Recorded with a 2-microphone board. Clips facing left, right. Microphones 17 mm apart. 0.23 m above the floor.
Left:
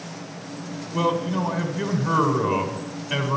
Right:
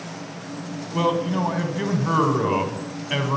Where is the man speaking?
15° right (ahead or behind), 1.6 m.